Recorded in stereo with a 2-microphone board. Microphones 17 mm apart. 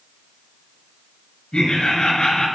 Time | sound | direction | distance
1.5 | laughter | 80° left | 6.5 m